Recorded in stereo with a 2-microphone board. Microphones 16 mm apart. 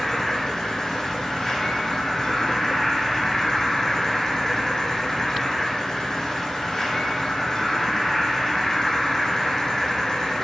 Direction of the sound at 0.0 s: 30° left (ahead or behind).